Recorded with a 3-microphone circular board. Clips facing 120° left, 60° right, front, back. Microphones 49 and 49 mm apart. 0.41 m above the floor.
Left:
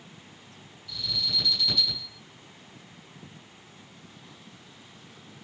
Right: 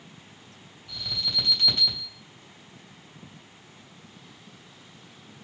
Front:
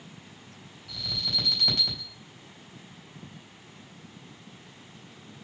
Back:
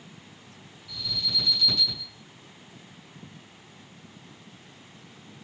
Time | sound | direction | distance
0.9 | an alarm | 25° right | 3.5 m